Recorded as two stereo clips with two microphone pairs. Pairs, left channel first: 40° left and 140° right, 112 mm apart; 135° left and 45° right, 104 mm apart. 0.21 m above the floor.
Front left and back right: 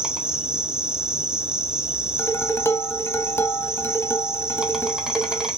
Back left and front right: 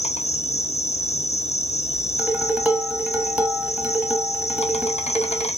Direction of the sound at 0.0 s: 135° left.